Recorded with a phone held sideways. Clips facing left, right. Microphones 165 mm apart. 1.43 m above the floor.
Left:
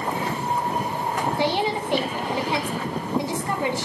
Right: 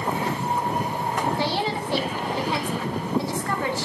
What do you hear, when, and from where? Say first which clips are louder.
1.4 s a woman speaking: left 2 dB; 20° left (ahead or behind), 2.5 m